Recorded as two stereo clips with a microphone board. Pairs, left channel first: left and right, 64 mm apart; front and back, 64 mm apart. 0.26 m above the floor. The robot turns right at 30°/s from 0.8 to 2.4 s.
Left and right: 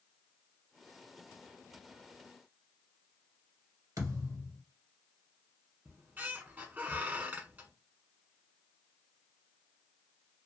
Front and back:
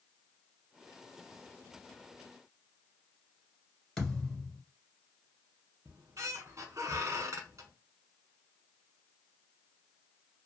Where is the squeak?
150° right, 0.6 m.